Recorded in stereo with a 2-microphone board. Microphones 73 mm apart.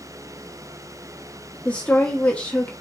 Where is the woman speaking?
15° left (ahead or behind), 1.1 m.